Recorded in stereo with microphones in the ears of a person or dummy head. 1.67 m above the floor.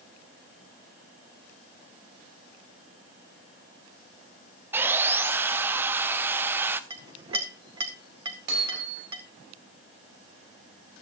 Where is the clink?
30° right (ahead or behind), 1.7 m.